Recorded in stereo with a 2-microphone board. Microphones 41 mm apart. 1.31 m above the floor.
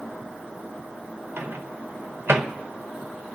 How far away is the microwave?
About 0.8 m.